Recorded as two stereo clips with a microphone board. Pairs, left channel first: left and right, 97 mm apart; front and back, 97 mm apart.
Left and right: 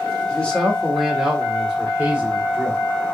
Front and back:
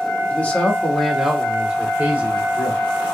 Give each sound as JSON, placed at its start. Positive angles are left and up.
{"t": 0.3, "sound": "a man speaking", "azimuth_deg": 35, "distance_m": 1.2}